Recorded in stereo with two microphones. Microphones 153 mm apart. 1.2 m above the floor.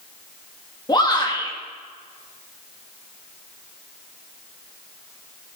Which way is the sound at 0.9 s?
30° left (ahead or behind).